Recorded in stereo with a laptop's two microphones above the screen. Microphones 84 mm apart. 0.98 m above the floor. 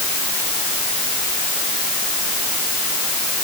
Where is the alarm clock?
I don't hear an alarm clock.